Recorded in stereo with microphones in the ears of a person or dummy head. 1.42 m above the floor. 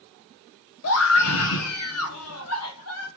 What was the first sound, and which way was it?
A scream, 85° left.